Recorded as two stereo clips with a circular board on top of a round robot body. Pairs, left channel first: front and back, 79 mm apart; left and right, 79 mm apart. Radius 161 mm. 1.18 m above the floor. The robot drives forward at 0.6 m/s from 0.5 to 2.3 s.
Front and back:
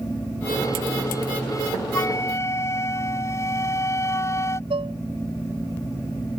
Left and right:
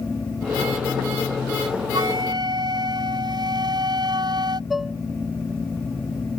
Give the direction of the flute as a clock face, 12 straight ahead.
2 o'clock.